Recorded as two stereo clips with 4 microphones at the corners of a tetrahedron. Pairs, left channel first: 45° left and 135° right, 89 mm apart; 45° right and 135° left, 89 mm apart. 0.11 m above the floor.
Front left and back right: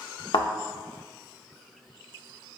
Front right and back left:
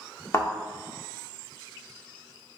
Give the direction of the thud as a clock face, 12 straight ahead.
12 o'clock.